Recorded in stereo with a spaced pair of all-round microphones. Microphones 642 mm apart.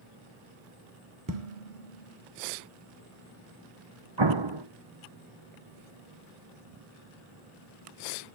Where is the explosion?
40° right (ahead or behind), 1.1 m.